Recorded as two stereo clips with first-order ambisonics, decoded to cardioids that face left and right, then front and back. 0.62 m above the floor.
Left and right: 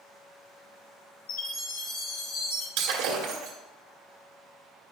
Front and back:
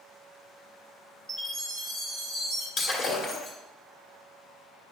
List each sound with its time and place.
1.3 s a chime: 95° left, 3 m
2.8 s breaking glass: 60° right, 1.6 m